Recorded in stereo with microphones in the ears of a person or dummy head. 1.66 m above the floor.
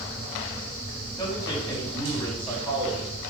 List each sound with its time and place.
1.2 s a man speaking: 30° left (ahead or behind), 4.5 m